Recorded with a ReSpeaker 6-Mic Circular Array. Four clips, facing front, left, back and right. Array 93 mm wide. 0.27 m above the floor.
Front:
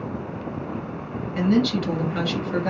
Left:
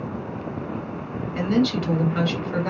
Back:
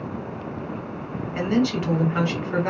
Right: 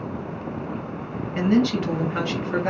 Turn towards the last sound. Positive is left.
turn(degrees=-145)